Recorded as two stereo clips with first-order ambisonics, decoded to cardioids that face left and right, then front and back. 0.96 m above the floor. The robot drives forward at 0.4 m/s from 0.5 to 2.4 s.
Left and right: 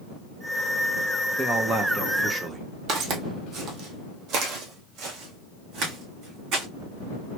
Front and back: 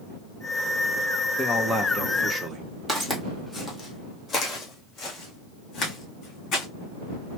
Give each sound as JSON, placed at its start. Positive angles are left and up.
{"t": 1.4, "sound": "a man speaking", "azimuth_deg": -55, "distance_m": 0.6}
{"t": 2.9, "sound": "footsteps", "azimuth_deg": -100, "distance_m": 1.2}